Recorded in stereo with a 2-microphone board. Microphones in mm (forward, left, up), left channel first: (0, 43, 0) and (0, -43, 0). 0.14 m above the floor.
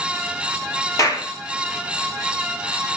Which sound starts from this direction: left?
A clap, at 1.0 s.